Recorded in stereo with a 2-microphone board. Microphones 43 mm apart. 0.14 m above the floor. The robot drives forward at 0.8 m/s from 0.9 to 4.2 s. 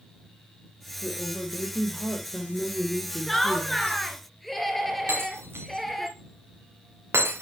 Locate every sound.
1.0 s a woman speaking: 15° left (ahead or behind), 4 m; by 4.0 s 30° left (ahead or behind), 2 m
3.3 s laughter: 5° left (ahead or behind), 1.4 m; by 6.1 s centre (ahead or behind), 2.0 m
5.1 s breaking glass: 90° right, 4 m